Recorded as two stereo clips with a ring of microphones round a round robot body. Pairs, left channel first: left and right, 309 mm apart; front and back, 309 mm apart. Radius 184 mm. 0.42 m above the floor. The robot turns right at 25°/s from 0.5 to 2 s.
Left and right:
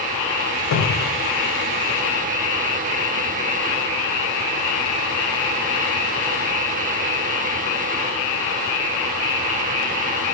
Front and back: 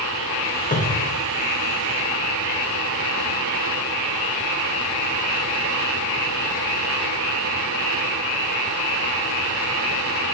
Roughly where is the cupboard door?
Ahead left.